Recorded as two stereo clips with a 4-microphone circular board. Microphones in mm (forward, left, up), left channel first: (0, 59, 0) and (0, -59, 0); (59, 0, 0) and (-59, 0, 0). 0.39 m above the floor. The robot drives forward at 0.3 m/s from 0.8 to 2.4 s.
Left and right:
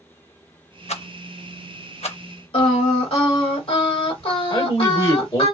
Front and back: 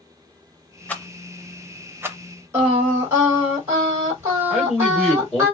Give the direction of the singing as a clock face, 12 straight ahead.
8 o'clock.